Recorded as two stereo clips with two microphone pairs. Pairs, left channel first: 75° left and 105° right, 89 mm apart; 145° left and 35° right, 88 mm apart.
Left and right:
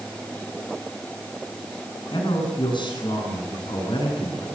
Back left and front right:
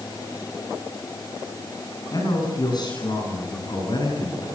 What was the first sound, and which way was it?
A man speaking, 100° left.